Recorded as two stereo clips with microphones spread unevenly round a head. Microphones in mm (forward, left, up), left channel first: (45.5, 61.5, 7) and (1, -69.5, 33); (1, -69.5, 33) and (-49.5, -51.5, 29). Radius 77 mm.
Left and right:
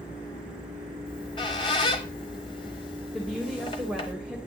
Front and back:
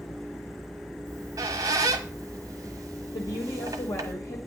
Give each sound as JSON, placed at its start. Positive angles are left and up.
{"t": 1.1, "sound": "a squeak", "azimuth_deg": 135, "distance_m": 1.0}
{"t": 3.1, "sound": "a woman speaking", "azimuth_deg": -15, "distance_m": 2.0}